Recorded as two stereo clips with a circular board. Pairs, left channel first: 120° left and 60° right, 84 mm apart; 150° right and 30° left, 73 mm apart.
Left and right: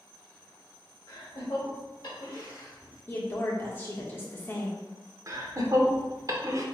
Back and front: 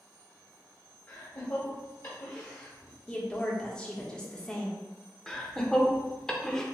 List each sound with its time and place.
1.1 s laughter: 165° left, 1.7 m
3.1 s a woman speaking: 145° left, 1.2 m
5.3 s laughter: 70° right, 0.9 m